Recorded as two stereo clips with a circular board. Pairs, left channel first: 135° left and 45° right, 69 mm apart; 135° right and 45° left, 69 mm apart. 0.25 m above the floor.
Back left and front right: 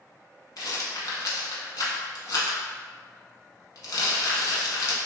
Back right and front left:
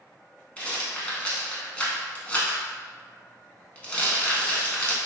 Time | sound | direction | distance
0.6 | a rattle | 155° left | 0.7 m